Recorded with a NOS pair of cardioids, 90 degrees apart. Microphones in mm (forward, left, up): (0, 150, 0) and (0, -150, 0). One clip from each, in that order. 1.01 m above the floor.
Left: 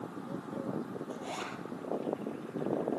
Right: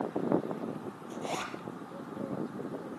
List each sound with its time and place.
1.1 s a zipper: 30° right, 4.5 m